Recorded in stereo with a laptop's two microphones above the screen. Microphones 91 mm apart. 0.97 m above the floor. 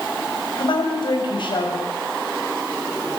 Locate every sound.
0.6 s a woman speaking: 60° left (ahead or behind), 6.5 m